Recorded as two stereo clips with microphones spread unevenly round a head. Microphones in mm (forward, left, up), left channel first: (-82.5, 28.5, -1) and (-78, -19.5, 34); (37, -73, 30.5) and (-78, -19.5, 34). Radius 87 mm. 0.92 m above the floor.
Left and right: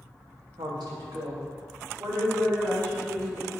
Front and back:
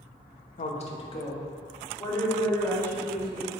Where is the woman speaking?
40° right, 1.0 m; by 3.6 s 95° right, 4 m.